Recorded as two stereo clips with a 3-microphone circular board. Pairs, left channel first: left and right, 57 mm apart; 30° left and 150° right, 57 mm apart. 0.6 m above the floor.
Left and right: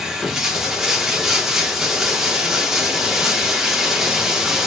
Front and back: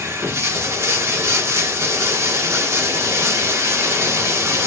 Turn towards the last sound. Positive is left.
turn(degrees=-170)